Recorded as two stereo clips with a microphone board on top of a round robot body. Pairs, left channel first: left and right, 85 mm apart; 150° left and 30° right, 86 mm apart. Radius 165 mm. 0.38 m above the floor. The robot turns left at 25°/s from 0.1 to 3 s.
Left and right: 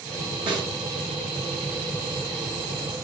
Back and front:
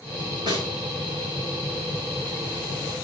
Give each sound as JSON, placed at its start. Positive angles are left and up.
{"t": 0.5, "sound": "a snare drum", "azimuth_deg": -65, "distance_m": 7.5}